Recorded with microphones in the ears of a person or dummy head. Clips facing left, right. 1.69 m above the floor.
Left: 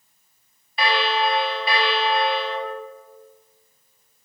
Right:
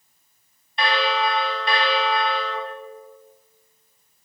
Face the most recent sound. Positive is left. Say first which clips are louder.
# even
turn(degrees=5)  # may be behind; listen again after turning